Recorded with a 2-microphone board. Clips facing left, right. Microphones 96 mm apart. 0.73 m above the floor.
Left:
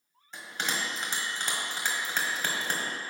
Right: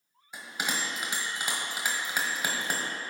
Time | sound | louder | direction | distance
0.3 | a bell | even | 10° right (ahead or behind) | 1.4 m